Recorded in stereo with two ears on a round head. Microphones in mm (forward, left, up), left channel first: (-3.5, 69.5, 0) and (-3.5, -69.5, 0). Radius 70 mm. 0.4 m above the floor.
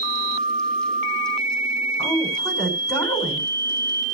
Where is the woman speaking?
20° left (ahead or behind), 5 m.